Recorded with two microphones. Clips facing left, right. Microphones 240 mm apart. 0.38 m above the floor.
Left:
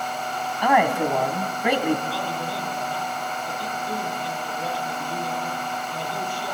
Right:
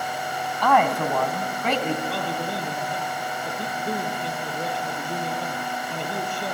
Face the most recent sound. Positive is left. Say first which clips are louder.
# right 1 dB
turn(degrees=-60)  # may be behind; listen again after turning